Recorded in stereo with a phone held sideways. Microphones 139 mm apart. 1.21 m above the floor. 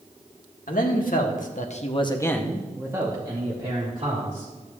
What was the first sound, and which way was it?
A man speaking, 75° left (ahead or behind).